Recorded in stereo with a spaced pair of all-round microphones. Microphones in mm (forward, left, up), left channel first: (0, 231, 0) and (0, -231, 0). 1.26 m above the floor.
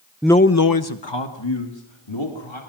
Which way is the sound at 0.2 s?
5° right (ahead or behind).